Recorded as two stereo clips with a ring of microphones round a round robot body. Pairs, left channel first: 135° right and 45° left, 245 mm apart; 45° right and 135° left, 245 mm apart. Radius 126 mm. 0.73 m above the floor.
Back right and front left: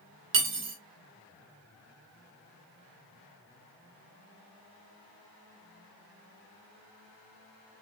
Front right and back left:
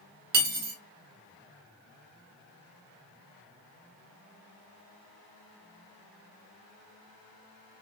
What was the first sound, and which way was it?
Cutlery clinking, 85° left.